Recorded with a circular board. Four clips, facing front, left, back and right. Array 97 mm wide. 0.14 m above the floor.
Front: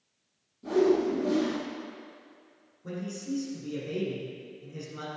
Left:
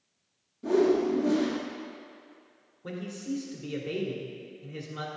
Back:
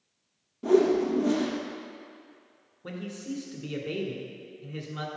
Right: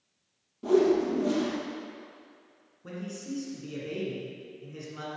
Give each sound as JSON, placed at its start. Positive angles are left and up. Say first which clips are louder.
{"t": 0.6, "sound": "a whoosh", "louder": "right 1 dB, back 2 dB", "azimuth_deg": -150, "distance_m": 2.0}
{"t": 2.8, "sound": "a man speaking", "louder": "left 2 dB, front 1 dB", "azimuth_deg": 160, "distance_m": 1.7}